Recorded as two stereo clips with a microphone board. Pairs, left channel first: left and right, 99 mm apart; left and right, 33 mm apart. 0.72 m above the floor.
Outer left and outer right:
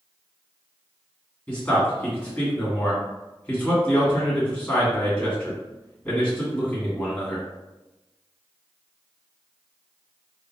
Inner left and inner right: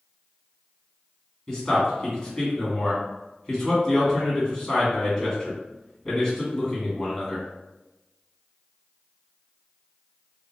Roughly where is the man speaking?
Centre.